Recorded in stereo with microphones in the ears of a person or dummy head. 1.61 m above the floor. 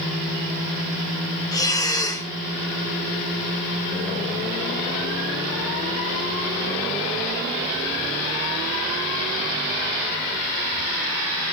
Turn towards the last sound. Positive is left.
turn(degrees=15)  # may be behind; listen again after turning